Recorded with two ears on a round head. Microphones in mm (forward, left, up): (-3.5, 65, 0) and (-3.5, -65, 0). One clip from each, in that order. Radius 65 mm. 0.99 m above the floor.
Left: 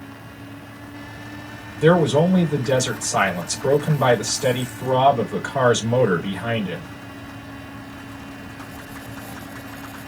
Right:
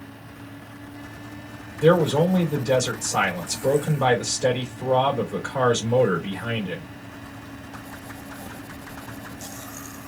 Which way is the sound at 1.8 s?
25° left (ahead or behind).